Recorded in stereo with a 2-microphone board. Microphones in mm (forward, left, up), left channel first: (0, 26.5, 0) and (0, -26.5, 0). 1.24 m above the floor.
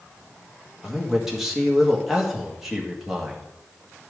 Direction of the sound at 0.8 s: 5° right (ahead or behind).